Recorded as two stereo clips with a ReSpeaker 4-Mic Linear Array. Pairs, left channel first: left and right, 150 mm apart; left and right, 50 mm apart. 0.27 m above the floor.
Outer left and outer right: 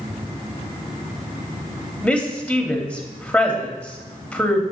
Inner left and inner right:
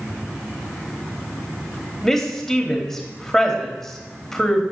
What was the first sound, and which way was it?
A woman speaking, 5° left (ahead or behind).